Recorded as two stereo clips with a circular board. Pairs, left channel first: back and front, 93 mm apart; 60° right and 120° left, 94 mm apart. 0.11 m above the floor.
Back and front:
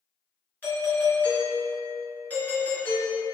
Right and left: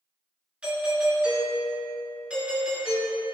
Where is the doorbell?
175° left, 1.7 m.